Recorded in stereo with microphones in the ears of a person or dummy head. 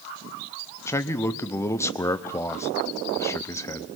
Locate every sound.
0.9 s a man speaking: 15° left (ahead or behind), 0.7 m